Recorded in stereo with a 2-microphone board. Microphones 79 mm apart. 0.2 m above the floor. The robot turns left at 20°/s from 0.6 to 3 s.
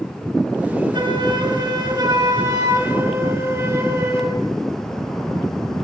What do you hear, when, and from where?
0.9 s a flute: 105° right, 5 m; by 4.4 s 150° right, 5 m